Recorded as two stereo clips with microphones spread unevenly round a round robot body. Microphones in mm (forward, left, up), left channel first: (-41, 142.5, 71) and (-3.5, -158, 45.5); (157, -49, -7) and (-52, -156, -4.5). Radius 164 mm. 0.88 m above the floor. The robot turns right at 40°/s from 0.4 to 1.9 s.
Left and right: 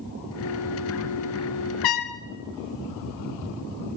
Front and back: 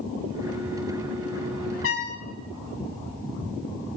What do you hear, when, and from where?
1.8 s a trumpet: 80° left, 0.9 m; by 2.2 s 85° left, 0.9 m